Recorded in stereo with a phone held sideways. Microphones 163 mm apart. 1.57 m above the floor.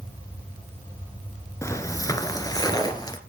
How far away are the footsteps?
About 1.6 m.